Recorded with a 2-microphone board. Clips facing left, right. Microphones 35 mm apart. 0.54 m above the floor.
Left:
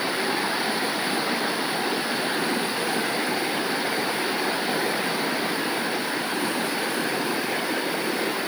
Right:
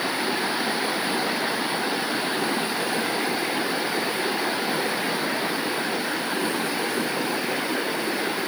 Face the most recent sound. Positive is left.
No sound to turn to.